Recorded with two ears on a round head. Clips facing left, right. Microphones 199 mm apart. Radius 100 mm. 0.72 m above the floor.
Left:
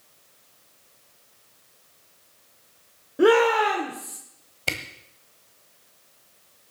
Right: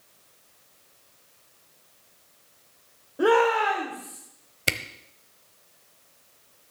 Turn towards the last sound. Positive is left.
turn(degrees=-20)  # may be behind; listen again after turning